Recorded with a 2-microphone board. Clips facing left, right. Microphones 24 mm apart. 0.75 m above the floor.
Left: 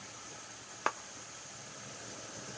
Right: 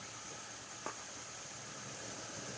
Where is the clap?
65° left (ahead or behind), 0.6 m.